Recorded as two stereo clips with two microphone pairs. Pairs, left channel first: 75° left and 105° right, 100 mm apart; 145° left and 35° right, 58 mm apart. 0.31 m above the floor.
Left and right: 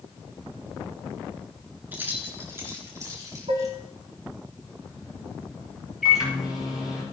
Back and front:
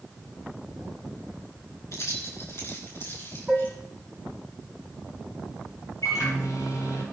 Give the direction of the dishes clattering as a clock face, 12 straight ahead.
4 o'clock.